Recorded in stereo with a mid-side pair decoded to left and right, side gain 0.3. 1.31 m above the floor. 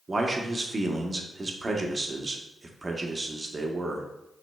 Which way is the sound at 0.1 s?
35° right.